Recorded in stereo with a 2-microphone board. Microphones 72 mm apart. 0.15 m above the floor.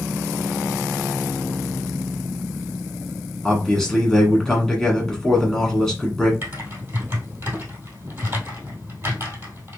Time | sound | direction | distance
3.4 | a man speaking | 5° left (ahead or behind) | 1.5 m
6.4 | typing on a keyboard | 35° right (ahead or behind) | 1.8 m